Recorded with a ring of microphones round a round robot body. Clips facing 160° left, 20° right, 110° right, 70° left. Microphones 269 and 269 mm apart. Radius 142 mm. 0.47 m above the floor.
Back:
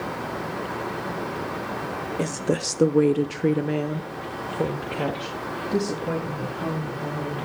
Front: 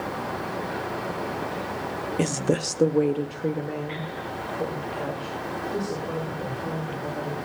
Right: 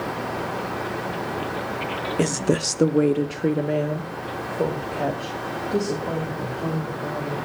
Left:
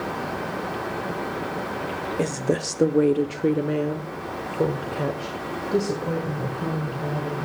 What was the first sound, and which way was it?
A woman speaking, 70° right.